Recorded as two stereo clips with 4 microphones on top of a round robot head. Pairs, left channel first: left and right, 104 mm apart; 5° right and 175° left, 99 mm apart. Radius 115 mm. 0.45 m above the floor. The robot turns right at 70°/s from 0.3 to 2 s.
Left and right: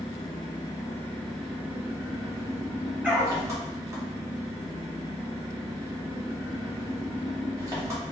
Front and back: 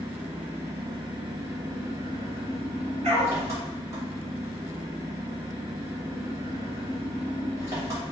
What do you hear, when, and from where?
0.0 s an engine running: 100° left, 1.4 m; by 8.1 s 140° right, 1.4 m
3.0 s a dog barking: 170° right, 1.3 m